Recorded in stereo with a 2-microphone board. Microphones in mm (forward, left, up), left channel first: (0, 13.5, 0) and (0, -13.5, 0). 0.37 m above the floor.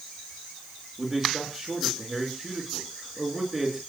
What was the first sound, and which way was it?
A man speaking, 5° right (ahead or behind).